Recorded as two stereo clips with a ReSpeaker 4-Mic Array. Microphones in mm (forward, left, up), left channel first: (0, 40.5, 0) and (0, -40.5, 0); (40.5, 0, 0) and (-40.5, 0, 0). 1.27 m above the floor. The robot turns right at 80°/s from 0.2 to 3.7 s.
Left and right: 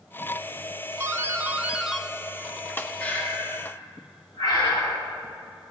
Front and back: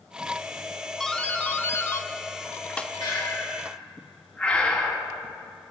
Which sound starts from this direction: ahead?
Breathing, at 3.0 s.